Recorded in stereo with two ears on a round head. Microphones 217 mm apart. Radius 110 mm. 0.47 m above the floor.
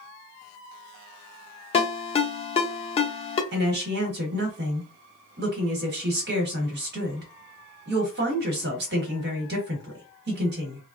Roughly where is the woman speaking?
Right.